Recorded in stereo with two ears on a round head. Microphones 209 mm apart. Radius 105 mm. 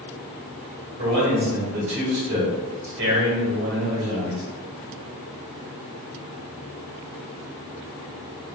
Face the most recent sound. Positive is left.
turn(degrees=-50)  # may be behind; listen again after turning